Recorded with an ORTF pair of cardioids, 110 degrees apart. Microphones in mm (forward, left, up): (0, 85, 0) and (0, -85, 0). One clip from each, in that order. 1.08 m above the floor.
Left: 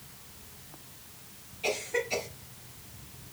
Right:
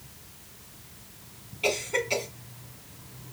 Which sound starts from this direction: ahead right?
A cough, at 1.6 s.